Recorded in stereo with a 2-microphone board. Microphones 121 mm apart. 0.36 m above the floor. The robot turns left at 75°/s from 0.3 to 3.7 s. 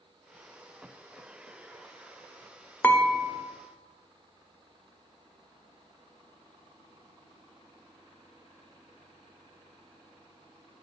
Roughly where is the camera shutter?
No camera shutter in this recording.